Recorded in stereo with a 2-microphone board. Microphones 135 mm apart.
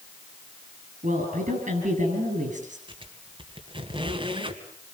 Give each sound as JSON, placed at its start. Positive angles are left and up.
{"t": 1.0, "sound": "a woman speaking", "side_deg": -65, "distance_m": 7.5}
{"t": 2.9, "sound": "a squeak", "side_deg": -40, "distance_m": 2.0}